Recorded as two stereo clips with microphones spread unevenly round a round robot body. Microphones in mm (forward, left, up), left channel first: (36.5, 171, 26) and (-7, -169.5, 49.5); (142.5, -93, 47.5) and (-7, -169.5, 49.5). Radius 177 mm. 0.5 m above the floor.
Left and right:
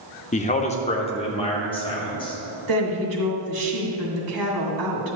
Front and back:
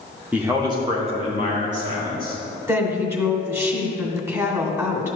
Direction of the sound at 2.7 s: 80° right.